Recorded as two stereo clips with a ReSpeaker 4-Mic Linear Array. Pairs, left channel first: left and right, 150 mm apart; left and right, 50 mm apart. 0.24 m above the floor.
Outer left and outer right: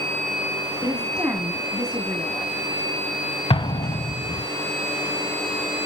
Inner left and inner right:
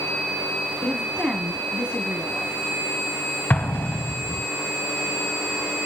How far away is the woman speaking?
About 2 m.